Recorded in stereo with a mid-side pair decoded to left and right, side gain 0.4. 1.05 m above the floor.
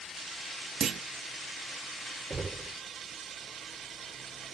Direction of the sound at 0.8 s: 60° right.